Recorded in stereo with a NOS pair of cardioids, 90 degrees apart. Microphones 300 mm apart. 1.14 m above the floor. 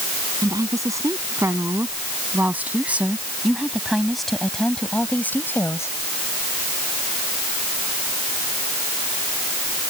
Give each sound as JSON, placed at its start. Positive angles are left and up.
{"t": 0.4, "sound": "a woman speaking", "azimuth_deg": -10}